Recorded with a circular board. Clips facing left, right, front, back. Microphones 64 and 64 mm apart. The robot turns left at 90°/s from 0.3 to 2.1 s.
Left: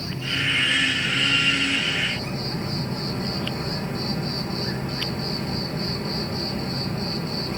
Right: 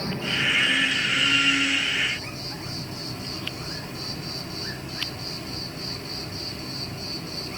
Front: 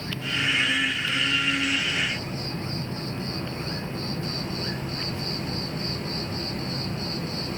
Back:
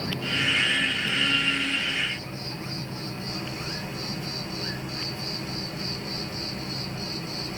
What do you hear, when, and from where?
0.0 s an insect: 150° right, 4 m; by 7.6 s 50° left, 4 m